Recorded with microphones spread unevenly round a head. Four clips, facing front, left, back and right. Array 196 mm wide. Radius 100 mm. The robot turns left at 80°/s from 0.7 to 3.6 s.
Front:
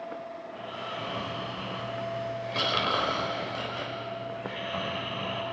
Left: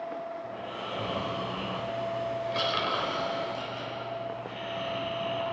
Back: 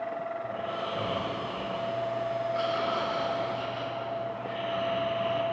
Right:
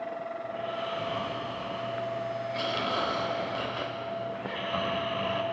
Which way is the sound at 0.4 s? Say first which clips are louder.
Right 4 dB, back 5 dB; 175° left.